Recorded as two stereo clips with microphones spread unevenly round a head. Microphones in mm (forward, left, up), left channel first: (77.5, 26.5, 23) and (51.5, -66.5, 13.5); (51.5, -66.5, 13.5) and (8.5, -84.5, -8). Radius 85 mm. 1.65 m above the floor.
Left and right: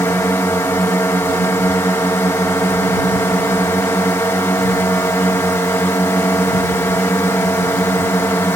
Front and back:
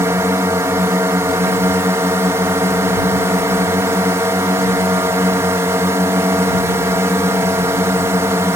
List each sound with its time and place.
0.0 s a drone: 150° left